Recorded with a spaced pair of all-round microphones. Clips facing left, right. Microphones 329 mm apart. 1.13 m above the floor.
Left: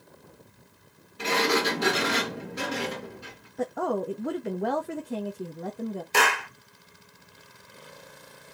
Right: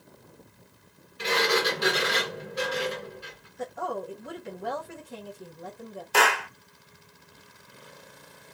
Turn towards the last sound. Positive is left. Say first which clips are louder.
# right 4 dB
turn(degrees=30)  # may be behind; listen again after turning